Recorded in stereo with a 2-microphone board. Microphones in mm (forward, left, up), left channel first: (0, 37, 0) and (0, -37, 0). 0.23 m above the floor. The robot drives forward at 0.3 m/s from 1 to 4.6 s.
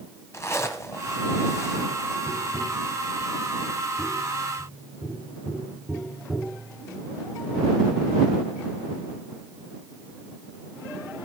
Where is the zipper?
40° left (ahead or behind), 1.4 m.